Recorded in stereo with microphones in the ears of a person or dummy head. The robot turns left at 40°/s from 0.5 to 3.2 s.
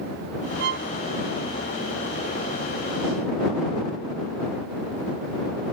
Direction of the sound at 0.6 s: 55° right (ahead or behind).